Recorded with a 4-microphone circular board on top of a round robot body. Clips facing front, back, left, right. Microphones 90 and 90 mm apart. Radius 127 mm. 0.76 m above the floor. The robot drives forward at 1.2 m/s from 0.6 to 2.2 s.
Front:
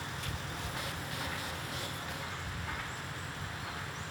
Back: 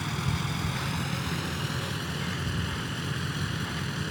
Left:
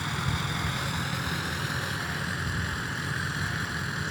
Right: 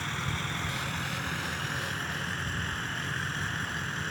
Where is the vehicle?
165° left.